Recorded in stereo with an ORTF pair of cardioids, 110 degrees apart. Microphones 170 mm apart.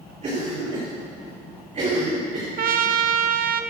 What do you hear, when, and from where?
0.2 s a cough: 40° right, 4.5 m
2.6 s a trumpet: 55° right, 1.0 m